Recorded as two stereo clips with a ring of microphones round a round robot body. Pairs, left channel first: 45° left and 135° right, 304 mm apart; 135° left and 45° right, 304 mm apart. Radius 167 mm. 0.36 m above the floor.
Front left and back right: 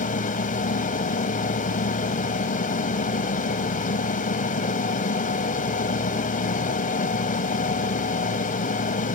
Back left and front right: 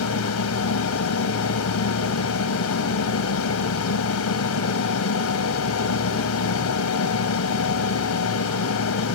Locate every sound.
0.0 s an aircraft: 105° left